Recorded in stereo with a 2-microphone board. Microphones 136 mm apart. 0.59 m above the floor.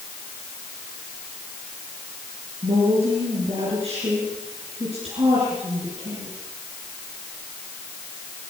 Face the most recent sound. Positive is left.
turn(degrees=-50)  # may be behind; listen again after turning